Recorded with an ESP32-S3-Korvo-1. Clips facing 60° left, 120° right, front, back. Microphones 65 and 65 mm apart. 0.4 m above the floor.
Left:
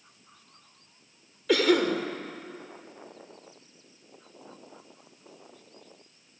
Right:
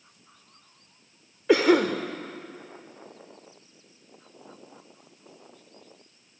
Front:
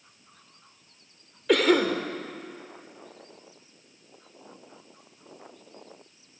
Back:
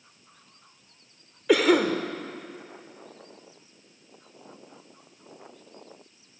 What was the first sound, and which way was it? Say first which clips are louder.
A cough: right 3 dB, back 1 dB; 100° right.